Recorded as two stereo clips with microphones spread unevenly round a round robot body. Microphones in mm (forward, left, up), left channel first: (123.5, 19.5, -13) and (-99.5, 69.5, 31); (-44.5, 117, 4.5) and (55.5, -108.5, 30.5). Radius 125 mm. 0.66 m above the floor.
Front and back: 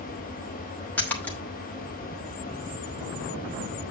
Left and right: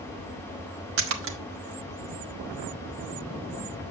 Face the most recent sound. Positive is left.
turn(degrees=-85)